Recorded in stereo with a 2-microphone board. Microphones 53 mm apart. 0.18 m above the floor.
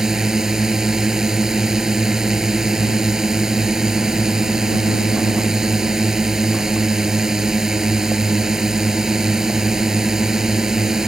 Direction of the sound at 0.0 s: 15° right (ahead or behind).